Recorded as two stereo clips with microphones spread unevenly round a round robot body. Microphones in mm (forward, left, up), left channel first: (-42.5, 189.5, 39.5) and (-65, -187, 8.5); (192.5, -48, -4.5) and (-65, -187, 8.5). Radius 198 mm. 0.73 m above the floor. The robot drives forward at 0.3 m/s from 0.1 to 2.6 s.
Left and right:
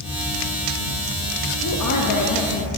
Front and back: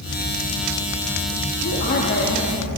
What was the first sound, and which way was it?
A woman speaking, 60° left.